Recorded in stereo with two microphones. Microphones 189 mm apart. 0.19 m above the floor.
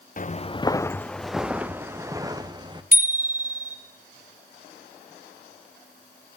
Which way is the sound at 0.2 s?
45° left (ahead or behind).